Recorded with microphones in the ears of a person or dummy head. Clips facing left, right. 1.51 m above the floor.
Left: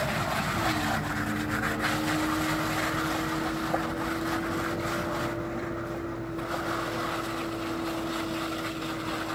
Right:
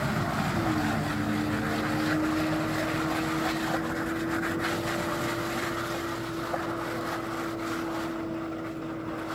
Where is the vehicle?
20° right (ahead or behind); by 9.4 s centre (ahead or behind).